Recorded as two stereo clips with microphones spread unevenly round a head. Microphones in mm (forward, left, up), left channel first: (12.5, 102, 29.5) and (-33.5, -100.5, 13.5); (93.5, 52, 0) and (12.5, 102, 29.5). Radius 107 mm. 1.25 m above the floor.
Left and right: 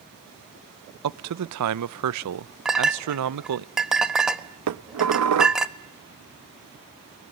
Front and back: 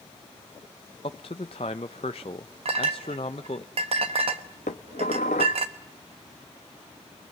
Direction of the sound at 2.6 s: 170° left.